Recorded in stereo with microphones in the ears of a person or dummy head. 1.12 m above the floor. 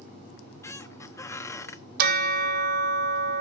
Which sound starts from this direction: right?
A bell, at 2.0 s.